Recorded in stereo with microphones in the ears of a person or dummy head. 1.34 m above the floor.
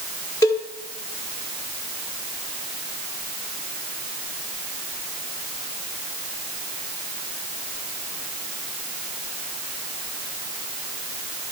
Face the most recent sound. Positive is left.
turn(degrees=15)  # may be behind; listen again after turning